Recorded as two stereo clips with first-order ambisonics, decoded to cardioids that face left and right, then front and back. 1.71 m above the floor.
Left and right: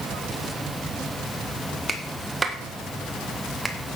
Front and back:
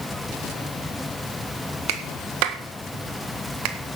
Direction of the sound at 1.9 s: 170° right.